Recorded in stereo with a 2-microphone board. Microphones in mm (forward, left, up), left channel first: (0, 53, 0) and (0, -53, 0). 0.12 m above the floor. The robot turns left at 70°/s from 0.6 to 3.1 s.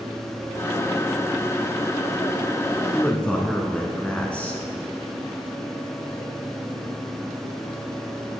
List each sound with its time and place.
2.9 s a man speaking: 15° left (ahead or behind), 1.2 m; by 4.6 s 10° left (ahead or behind), 1.2 m